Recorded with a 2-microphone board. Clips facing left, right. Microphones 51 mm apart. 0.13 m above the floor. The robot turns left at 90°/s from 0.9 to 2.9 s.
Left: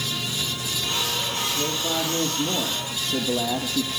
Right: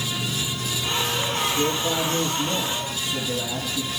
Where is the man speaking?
160° right, 4.5 m; by 3.9 s 70° left, 4.5 m.